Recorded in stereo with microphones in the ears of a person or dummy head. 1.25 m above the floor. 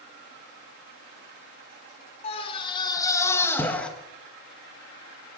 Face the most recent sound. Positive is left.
turn(degrees=5)  # may be behind; listen again after turning